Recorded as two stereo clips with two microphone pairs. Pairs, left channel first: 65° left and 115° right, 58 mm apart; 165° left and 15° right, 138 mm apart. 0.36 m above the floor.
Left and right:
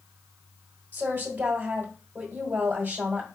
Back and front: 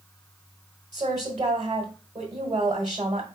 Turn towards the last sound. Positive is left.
turn(degrees=-70)